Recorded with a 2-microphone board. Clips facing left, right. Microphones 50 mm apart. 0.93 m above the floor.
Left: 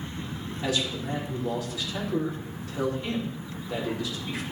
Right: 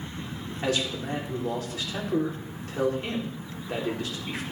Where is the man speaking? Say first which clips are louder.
Right 1 dB; 50° right (ahead or behind), 2.5 m.